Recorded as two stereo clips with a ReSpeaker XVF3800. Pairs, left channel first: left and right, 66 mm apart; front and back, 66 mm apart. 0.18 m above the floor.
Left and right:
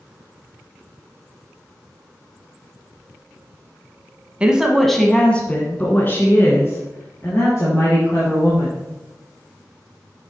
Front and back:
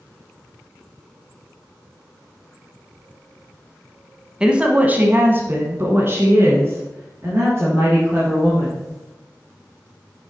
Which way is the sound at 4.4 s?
130° right.